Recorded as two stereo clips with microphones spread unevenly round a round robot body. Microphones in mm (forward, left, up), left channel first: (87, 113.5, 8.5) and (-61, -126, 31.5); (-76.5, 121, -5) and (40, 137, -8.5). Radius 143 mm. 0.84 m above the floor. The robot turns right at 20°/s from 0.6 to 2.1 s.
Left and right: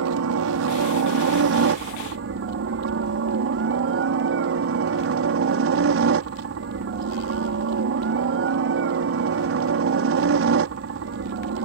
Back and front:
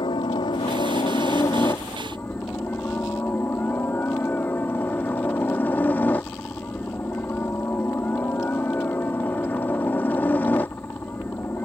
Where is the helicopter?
125° right; by 11.7 s 95° right.